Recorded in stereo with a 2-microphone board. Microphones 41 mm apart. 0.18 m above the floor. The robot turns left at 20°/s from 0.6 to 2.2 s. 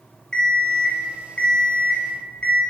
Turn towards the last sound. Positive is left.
turn(degrees=120)